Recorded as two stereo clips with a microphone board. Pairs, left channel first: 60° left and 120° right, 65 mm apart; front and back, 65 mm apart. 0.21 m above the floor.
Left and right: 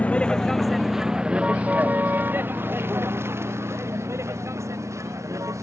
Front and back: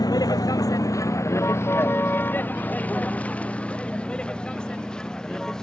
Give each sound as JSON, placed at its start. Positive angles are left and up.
{"t": 0.0, "sound": "a vehicle", "azimuth_deg": -10}